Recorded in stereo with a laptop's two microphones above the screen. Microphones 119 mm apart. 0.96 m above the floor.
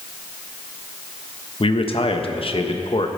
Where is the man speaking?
50° left (ahead or behind), 0.9 m.